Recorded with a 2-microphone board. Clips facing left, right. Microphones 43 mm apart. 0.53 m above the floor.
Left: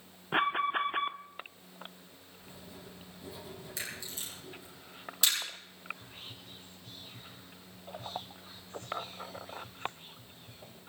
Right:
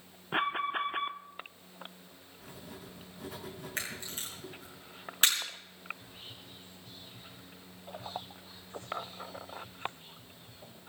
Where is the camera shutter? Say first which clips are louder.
Right 3 dB; 45° right (ahead or behind), 7.5 m.